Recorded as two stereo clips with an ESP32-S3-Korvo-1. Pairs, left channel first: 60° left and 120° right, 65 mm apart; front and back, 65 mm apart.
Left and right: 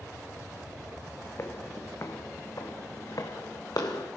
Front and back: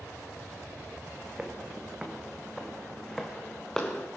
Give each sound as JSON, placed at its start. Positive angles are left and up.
{"t": 1.4, "sound": "footsteps", "azimuth_deg": 110, "distance_m": 2.0}